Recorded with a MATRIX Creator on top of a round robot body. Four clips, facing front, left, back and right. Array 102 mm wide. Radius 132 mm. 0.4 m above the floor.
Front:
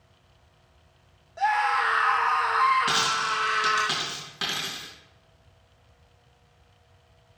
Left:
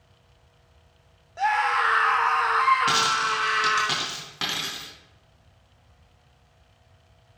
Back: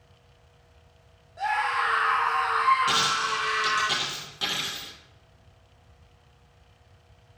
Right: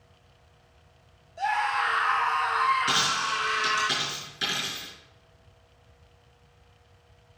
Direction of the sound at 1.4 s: 70° left.